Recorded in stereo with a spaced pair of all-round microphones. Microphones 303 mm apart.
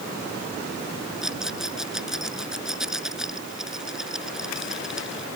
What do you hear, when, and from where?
1.2 s a rattle: centre (ahead or behind)